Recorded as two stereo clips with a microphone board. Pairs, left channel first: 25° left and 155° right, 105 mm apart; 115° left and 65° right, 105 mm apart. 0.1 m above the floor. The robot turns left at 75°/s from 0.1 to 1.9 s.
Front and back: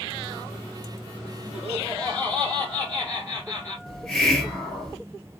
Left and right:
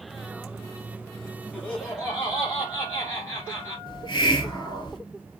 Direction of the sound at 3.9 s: 105° left.